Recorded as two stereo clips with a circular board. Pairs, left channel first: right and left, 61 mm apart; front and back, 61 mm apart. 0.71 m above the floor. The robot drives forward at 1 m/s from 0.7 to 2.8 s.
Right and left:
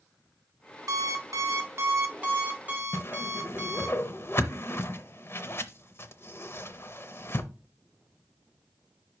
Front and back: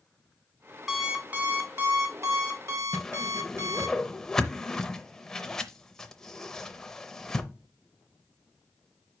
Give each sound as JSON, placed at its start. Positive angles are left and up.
{"t": 0.9, "sound": "an alarm clock", "azimuth_deg": 95, "distance_m": 1.0}
{"t": 2.9, "sound": "a whoosh", "azimuth_deg": -75, "distance_m": 0.5}